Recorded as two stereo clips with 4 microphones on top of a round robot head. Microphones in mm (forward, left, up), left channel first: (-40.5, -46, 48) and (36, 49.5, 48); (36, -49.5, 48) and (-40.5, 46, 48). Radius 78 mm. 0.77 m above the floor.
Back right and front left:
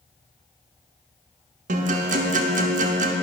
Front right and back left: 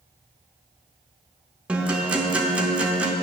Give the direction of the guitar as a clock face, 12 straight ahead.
10 o'clock.